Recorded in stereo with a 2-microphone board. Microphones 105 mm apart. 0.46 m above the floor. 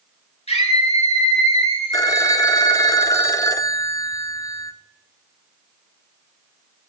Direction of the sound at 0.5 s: 70° left (ahead or behind).